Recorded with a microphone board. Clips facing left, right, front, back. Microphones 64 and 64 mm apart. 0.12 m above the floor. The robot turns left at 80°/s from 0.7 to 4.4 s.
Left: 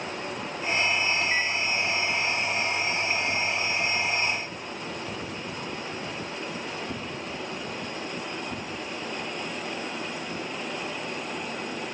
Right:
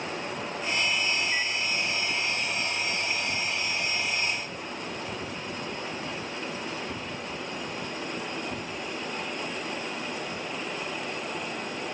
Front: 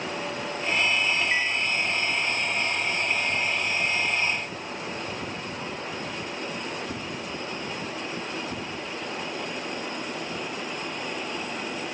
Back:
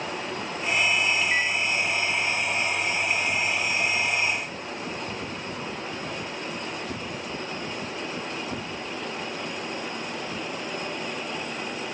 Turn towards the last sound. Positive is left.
turn(degrees=-170)